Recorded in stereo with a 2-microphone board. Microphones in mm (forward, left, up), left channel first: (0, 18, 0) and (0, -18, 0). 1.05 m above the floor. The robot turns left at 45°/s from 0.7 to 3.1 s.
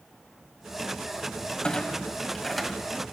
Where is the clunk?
30° left (ahead or behind), 1.0 m; by 3.0 s 10° right (ahead or behind), 1.0 m.